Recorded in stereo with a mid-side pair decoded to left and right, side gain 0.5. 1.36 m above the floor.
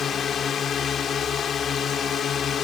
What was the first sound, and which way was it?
A drone, 55° left.